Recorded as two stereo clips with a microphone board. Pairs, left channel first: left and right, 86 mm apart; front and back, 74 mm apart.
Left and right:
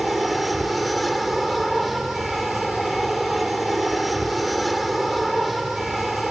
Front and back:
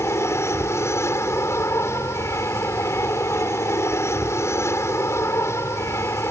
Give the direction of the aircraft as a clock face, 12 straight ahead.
12 o'clock.